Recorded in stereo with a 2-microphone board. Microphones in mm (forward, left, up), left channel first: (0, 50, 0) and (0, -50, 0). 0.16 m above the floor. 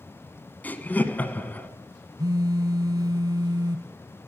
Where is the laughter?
15° left (ahead or behind), 1.2 m.